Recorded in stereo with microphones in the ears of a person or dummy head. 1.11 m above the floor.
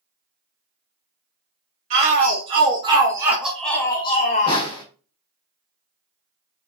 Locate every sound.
1.9 s a shout: 35° right (ahead or behind), 1.2 m; by 4.7 s 50° left (ahead or behind), 0.7 m
4.5 s a snare drum: 20° left (ahead or behind), 1.4 m